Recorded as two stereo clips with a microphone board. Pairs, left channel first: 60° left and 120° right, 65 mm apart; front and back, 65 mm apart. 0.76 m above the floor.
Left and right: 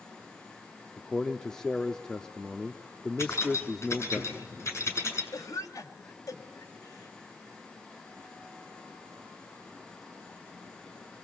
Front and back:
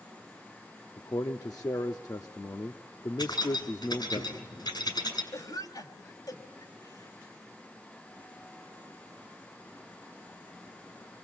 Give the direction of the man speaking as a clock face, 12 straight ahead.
1 o'clock.